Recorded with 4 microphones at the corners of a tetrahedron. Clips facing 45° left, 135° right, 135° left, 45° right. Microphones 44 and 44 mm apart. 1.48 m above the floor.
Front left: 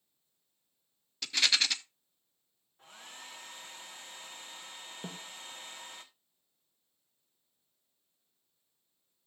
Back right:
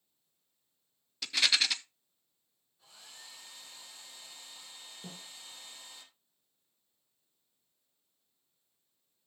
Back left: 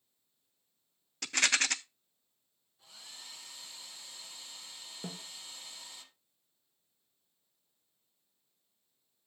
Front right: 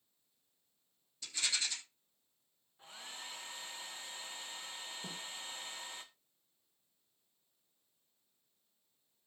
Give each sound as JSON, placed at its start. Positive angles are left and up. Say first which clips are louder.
{"t": 1.2, "sound": "a rattle", "louder": "even, back left 9 dB", "azimuth_deg": 135, "distance_m": 0.7}
{"t": 2.8, "sound": "a hair dryer", "louder": "front left 5 dB, front right 4 dB", "azimuth_deg": 5, "distance_m": 1.5}
{"t": 5.0, "sound": "a snare drum", "louder": "front left 5 dB, back left 6 dB", "azimuth_deg": 90, "distance_m": 2.5}